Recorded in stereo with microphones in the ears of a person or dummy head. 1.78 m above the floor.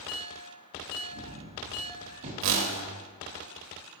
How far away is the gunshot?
About 0.9 m.